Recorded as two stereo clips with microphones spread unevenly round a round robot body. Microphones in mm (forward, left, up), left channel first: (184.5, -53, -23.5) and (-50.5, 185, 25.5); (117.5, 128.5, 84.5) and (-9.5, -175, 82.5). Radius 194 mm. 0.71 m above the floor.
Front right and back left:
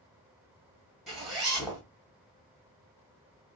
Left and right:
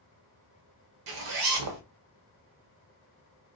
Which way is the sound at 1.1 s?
130° right.